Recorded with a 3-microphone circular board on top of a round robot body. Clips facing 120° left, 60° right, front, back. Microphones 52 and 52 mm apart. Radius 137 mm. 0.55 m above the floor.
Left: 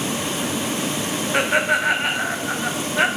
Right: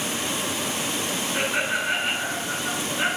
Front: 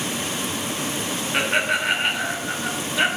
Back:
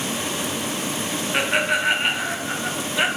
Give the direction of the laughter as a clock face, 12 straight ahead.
9 o'clock.